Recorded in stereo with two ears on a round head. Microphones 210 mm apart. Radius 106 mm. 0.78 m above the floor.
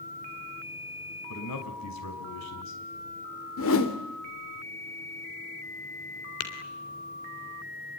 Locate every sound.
1.3 s a man speaking: 80° left, 5.5 m
3.6 s a whoosh: 60° left (ahead or behind), 3 m
6.4 s tapping: 70° left (ahead or behind), 3.5 m